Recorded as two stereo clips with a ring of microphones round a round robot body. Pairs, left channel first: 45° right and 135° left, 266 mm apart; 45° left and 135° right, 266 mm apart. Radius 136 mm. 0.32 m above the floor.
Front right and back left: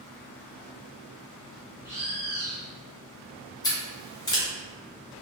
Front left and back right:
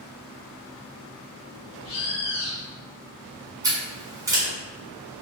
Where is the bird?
55° left, 1.2 m.